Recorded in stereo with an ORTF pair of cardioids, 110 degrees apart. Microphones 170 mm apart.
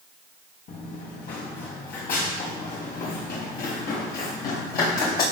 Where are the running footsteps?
65° left, 5.5 m.